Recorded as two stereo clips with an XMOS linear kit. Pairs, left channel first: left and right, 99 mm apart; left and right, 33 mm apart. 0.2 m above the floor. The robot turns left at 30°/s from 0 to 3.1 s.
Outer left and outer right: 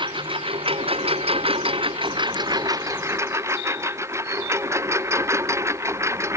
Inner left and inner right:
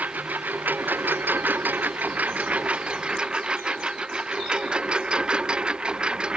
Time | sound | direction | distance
0.0 | a lawn mower | 60° right | ?